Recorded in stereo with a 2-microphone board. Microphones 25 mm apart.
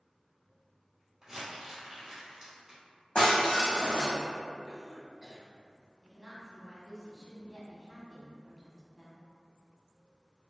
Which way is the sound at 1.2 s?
15° right (ahead or behind).